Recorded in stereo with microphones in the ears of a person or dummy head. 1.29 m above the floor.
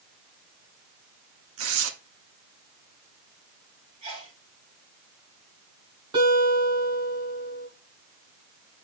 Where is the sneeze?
35° right (ahead or behind), 7 m.